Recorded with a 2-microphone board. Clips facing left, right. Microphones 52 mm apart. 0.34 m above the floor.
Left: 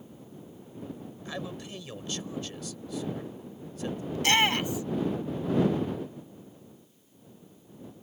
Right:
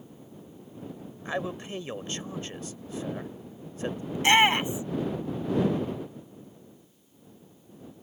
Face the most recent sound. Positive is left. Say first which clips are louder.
# right 4 dB
turn(degrees=-20)  # may be behind; listen again after turning